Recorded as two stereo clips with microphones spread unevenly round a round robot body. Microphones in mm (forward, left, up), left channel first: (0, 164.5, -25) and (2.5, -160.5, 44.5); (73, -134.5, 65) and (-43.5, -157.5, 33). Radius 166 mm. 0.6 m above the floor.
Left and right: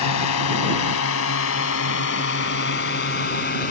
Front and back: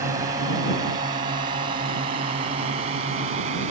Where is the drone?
125° left; by 3.7 s 155° left.